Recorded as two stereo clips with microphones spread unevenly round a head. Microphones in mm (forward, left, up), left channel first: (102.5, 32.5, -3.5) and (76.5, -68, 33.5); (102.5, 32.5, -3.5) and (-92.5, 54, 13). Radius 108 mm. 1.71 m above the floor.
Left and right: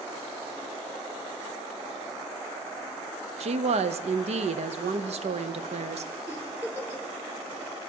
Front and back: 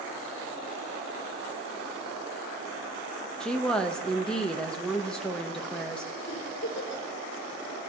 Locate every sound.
3.4 s a woman speaking: 95° right, 0.8 m
6.3 s a giggle: 45° right, 3.5 m